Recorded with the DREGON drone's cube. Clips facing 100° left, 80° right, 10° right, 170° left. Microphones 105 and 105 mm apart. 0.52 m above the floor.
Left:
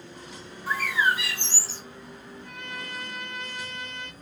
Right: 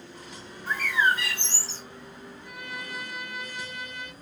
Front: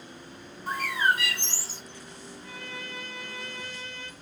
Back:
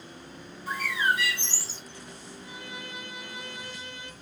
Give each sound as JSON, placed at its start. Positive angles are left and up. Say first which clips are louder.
{"t": 0.7, "sound": "a bird", "louder": "even, front 2 dB", "azimuth_deg": 20, "distance_m": 1.7}
{"t": 2.4, "sound": "a violin", "louder": "even, front 1 dB", "azimuth_deg": -145, "distance_m": 0.8}